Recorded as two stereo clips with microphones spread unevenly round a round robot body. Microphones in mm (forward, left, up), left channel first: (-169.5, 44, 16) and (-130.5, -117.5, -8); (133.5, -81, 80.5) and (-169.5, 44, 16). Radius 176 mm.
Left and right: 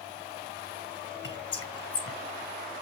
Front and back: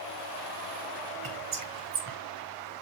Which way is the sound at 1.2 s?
115° left.